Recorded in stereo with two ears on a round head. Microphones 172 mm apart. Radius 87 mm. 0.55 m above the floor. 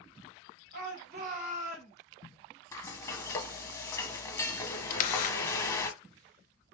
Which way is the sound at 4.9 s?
45° left (ahead or behind).